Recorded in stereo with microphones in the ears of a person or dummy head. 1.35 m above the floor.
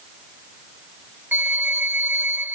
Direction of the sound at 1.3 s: 10° right (ahead or behind).